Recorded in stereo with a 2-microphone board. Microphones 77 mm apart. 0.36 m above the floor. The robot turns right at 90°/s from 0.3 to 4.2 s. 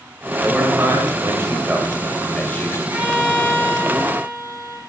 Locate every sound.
0.4 s a man speaking: 160° right, 1.8 m; by 2.8 s 55° left, 1.8 m
2.9 s a violin: 30° right, 2.5 m; by 4.8 s 90° left, 2.5 m